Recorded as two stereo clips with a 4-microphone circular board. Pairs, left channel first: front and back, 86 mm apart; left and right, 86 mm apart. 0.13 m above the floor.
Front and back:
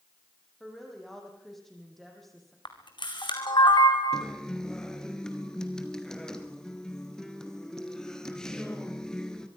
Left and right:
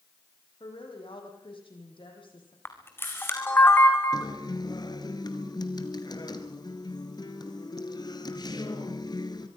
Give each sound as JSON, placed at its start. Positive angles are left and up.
{"t": 0.6, "sound": "a woman speaking", "azimuth_deg": 85, "distance_m": 6.0}
{"t": 2.6, "sound": "a camera shutter", "azimuth_deg": 30, "distance_m": 2.5}
{"t": 4.1, "sound": "a guitar", "azimuth_deg": 80, "distance_m": 1.7}